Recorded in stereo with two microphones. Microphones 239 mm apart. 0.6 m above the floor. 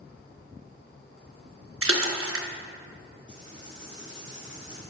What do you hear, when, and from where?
1.8 s a splash: 65° right (ahead or behind), 0.6 m
3.3 s writing: 50° left (ahead or behind), 1.9 m